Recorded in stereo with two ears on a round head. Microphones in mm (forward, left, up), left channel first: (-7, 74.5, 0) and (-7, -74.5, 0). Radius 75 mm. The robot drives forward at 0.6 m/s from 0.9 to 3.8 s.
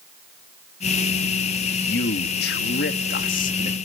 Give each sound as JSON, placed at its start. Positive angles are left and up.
{"t": 1.7, "sound": "a man speaking", "side_deg": 60, "distance_m": 1.2}